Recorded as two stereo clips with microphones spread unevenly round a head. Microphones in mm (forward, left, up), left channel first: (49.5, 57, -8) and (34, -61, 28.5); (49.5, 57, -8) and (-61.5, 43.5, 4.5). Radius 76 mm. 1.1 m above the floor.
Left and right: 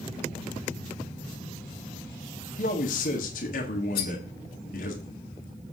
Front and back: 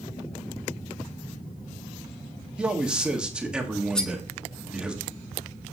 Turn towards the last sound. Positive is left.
turn(degrees=90)